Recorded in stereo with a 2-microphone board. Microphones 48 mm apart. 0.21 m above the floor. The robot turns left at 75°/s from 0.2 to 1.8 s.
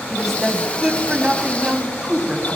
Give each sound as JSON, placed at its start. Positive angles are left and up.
{"t": 0.1, "sound": "a woman speaking", "side_deg": 0, "distance_m": 1.4}